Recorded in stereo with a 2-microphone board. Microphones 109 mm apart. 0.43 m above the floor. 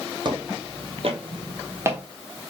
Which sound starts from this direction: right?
Footsteps, at 0.2 s.